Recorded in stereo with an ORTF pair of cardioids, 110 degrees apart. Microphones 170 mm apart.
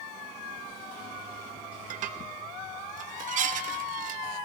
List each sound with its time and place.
1.9 s dishes clattering: 55° right, 1.3 m